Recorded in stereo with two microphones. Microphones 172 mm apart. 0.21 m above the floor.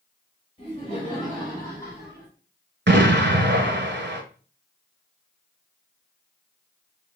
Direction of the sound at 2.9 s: 75° right (ahead or behind).